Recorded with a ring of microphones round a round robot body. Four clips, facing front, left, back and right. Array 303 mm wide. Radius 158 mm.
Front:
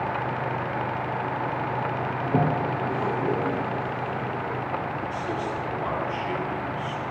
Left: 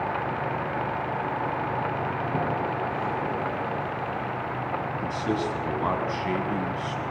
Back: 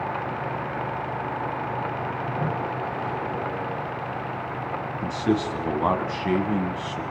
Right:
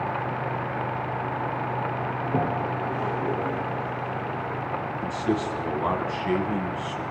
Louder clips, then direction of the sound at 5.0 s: Right 2 dB, back 5 dB; 175° left.